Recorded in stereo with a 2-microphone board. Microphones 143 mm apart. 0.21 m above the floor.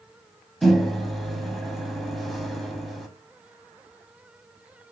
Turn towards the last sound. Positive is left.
turn(degrees=0)  # may be behind; listen again after turning